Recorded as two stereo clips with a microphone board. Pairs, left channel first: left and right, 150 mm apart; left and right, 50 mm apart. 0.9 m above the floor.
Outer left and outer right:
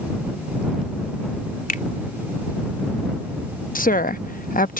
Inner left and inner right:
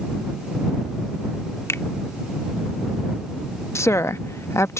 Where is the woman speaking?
70° left (ahead or behind).